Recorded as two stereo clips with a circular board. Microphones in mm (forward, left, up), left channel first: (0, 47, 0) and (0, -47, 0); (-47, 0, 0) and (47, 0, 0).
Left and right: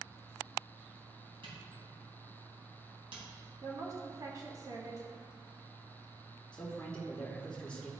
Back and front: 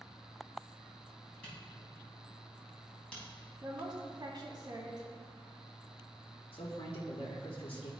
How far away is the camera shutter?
About 3 m.